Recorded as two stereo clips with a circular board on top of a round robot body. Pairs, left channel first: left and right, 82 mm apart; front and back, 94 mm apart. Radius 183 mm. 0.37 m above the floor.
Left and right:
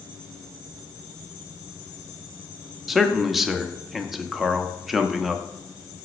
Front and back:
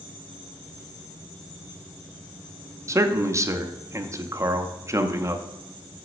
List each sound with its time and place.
2.9 s a man speaking: 175° right, 1.0 m